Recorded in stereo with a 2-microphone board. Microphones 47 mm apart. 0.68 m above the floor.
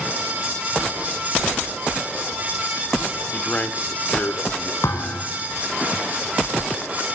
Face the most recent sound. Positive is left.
turn(degrees=80)